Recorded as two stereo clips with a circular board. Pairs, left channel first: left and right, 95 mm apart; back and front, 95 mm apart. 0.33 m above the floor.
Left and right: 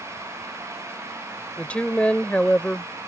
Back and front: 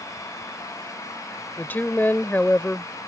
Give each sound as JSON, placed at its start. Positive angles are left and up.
{"t": 1.6, "sound": "a woman speaking", "azimuth_deg": 145}